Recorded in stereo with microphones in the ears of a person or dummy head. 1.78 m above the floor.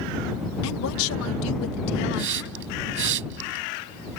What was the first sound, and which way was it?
A woman speaking, 80° left.